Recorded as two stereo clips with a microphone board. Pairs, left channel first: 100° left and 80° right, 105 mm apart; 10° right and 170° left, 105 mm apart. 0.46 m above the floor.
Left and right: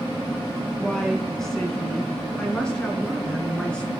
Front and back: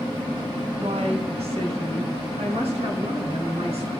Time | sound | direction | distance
0.8 | a woman speaking | 175° right | 3.5 m